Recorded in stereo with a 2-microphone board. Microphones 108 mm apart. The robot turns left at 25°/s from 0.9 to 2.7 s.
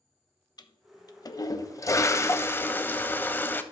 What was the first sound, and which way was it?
A toilet flushing, 75° left.